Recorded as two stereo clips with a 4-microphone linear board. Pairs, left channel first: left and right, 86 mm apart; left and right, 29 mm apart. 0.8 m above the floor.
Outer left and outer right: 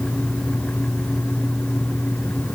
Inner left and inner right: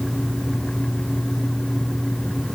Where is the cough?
I don't hear a cough.